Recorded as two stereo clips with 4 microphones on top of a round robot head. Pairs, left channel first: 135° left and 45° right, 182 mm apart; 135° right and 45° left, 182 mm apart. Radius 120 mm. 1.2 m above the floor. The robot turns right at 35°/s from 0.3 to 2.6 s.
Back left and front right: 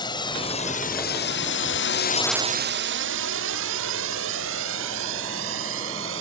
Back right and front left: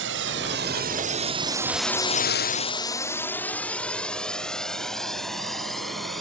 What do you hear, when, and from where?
0.0 s a drone: 65° left; by 6.2 s 45° right